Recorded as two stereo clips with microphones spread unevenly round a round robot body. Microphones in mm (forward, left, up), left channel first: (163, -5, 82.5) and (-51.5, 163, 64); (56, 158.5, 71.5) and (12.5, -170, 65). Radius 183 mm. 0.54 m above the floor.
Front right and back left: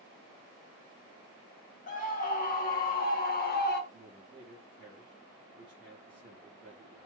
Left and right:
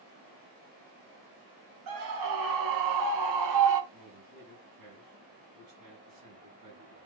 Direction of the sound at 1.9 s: 105° right.